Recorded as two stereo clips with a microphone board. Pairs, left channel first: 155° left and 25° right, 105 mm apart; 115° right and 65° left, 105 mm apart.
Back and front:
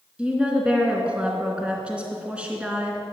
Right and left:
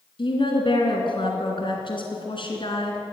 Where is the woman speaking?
100° right, 2.5 m.